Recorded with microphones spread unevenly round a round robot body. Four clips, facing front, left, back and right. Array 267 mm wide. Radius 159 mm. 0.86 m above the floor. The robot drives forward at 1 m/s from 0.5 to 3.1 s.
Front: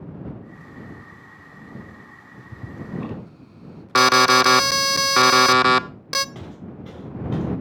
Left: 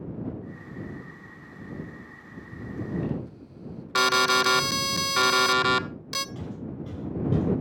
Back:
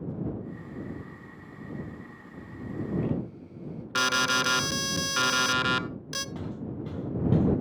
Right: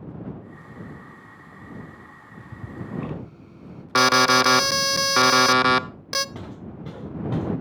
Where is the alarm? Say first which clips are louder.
Right 5 dB, front 12 dB; 40° right, 0.7 m.